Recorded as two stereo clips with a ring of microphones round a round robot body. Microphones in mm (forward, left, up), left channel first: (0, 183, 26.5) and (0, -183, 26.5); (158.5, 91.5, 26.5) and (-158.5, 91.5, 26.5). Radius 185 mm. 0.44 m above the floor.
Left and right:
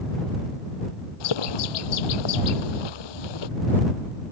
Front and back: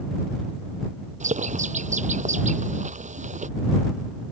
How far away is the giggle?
I don't hear a giggle.